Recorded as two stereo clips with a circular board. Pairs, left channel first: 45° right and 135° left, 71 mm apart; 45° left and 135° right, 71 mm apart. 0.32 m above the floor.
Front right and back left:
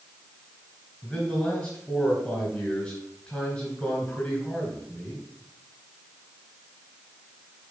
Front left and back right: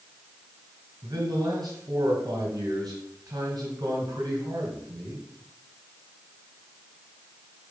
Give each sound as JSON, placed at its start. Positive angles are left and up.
{"t": 1.0, "sound": "a man speaking", "azimuth_deg": -115, "distance_m": 3.0}